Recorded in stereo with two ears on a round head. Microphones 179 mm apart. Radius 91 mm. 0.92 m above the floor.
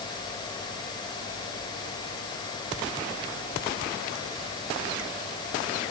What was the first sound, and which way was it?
Only background noise.